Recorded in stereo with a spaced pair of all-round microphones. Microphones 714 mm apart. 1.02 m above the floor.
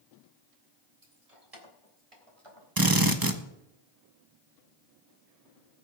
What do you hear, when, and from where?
1.0 s keys jangling: 60° right (ahead or behind), 3.5 m; by 2.7 s 40° right (ahead or behind), 4 m
2.8 s a drill: 30° right (ahead or behind), 1.3 m